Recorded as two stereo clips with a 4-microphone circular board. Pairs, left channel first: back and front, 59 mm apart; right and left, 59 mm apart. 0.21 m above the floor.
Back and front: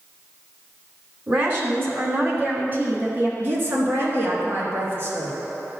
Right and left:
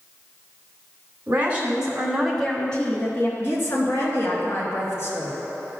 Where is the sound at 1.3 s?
35° left, 2 m; by 3.3 s 50° right, 1.9 m.